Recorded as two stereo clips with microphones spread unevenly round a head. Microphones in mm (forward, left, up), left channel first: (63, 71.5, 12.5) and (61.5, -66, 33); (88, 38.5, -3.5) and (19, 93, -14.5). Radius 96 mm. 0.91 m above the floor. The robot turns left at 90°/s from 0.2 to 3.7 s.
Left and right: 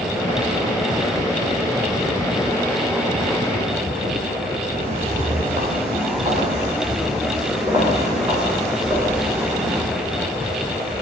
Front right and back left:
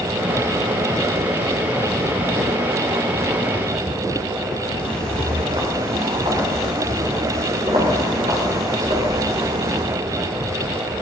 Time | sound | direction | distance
4.8 | footsteps | 145° right | 5.5 m